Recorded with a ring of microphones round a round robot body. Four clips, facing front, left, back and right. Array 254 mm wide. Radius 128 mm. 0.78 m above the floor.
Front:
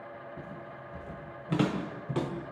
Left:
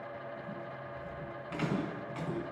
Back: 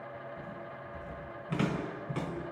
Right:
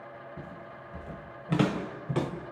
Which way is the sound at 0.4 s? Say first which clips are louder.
Left 1 dB, even; 60° right.